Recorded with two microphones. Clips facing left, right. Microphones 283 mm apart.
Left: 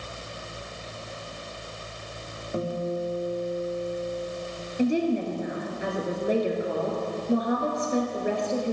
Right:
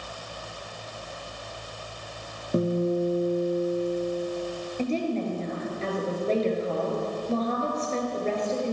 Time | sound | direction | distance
2.5 | a guitar | 35° right (ahead or behind) | 1.9 m
4.8 | a woman speaking | 15° left (ahead or behind) | 2 m